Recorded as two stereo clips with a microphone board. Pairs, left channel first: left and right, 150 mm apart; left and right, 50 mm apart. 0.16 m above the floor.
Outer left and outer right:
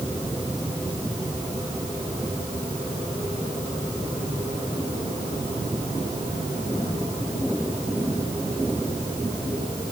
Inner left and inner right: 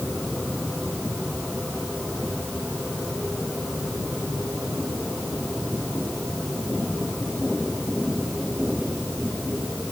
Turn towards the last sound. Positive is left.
No sound to turn to.